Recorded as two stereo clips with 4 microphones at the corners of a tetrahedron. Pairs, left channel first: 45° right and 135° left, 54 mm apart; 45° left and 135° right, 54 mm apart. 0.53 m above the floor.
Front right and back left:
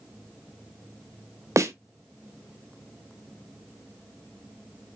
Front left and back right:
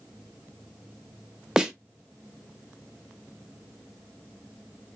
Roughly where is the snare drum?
Behind left.